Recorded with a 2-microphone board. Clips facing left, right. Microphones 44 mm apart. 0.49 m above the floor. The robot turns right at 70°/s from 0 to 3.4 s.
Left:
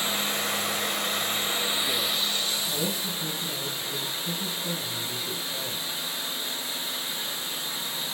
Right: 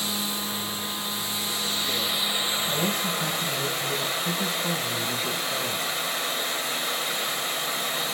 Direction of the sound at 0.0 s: 40° left.